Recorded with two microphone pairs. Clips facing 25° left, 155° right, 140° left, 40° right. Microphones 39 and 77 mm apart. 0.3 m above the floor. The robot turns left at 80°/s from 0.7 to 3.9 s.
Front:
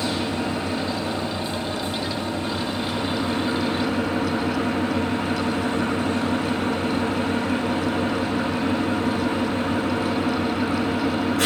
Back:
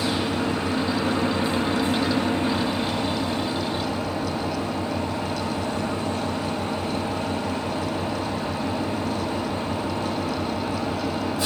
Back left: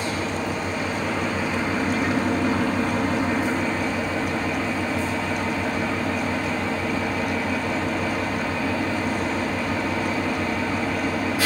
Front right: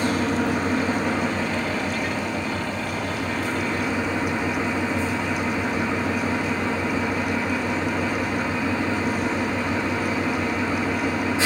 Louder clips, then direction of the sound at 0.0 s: Back 1 dB, front right 4 dB; 80° right.